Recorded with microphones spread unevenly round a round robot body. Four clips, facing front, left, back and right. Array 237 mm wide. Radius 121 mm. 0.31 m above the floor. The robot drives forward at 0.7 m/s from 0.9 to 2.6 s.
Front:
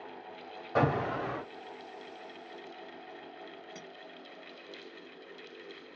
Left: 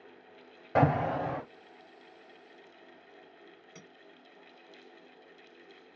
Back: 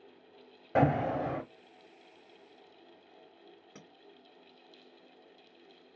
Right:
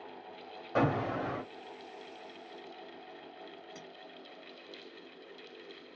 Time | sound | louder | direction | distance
0.8 | an alarm | left 4 dB, back 2 dB | 150° left | 1.5 m
3.8 | a clink | right 4 dB, front 6 dB | 170° right | 1.6 m